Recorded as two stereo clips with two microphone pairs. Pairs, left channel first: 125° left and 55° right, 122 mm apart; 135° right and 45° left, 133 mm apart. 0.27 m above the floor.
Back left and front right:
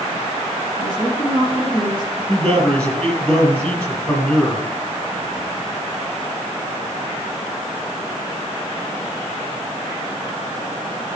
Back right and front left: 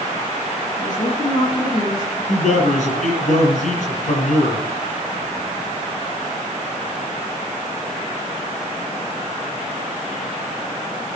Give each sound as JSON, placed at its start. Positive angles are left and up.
{"t": 0.8, "sound": "a woman speaking", "azimuth_deg": 175, "distance_m": 4.5}
{"t": 2.3, "sound": "a man speaking", "azimuth_deg": -160, "distance_m": 7.5}